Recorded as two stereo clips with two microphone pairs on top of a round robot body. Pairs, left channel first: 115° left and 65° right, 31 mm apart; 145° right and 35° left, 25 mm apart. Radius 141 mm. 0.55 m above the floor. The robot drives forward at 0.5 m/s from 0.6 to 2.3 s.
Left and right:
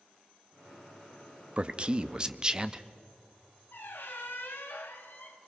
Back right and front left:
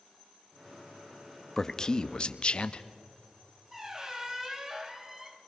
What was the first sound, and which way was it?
A man speaking, 60° right.